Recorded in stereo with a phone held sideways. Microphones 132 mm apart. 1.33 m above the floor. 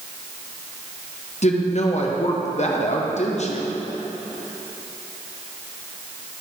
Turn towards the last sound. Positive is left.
turn(degrees=60)  # may be behind; listen again after turning